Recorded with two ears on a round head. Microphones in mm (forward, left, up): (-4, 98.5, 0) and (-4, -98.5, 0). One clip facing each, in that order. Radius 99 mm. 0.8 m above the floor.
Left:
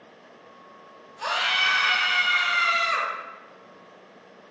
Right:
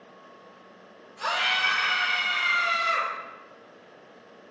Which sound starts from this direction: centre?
A scream, at 1.2 s.